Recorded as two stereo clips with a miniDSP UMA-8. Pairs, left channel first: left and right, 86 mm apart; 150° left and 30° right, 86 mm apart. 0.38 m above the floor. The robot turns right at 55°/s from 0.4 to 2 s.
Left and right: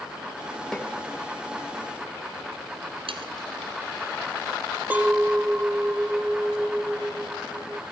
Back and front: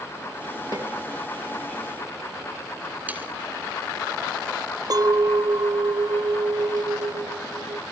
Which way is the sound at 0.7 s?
5° left.